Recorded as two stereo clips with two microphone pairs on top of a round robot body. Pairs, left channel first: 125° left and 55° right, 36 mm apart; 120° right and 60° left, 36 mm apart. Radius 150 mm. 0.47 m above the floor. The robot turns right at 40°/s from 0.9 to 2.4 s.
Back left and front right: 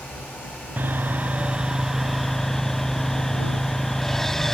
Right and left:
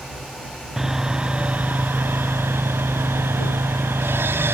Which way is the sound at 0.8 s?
15° right.